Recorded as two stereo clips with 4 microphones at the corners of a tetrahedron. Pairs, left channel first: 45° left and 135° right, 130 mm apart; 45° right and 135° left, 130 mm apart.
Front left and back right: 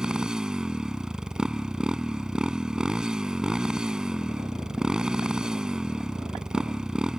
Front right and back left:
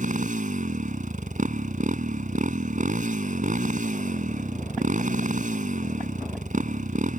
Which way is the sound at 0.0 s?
140° left.